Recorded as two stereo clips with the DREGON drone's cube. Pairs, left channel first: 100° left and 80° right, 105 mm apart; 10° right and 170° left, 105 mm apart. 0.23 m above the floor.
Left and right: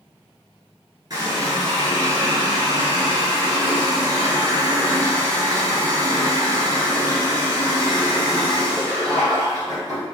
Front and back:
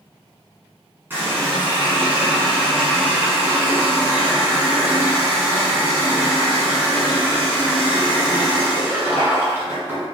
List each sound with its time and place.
1.1 s a running tap: 125° right, 1.6 m